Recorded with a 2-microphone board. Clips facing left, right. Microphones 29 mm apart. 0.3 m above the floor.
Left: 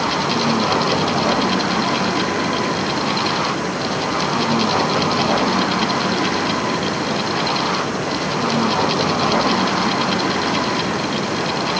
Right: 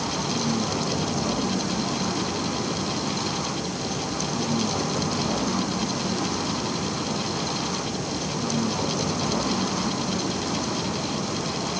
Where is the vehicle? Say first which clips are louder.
Left 8 dB; 85° left.